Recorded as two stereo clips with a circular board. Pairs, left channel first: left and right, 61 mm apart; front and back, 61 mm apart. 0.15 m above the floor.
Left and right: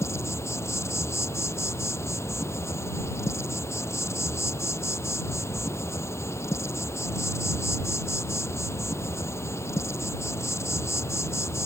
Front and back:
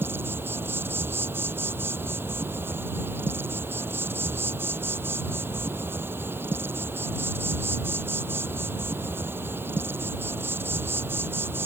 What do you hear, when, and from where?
0.0 s an insect: 130° left